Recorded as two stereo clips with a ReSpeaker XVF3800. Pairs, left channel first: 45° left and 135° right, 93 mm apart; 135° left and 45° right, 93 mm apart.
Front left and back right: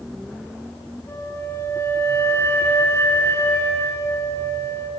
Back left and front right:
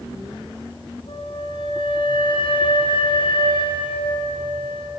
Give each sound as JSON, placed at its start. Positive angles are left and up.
{"t": 1.1, "sound": "a flute", "azimuth_deg": 110, "distance_m": 4.0}